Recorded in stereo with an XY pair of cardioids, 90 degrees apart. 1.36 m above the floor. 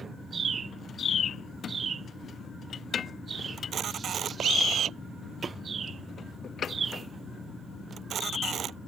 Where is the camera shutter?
70° right.